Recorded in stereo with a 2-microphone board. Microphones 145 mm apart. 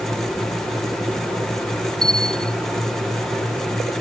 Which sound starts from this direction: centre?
A bell, at 2.0 s.